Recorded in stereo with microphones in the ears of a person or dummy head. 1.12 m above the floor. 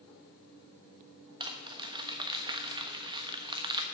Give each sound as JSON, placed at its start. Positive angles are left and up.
{"t": 1.4, "sound": "crumpling", "side_deg": -20, "distance_m": 1.1}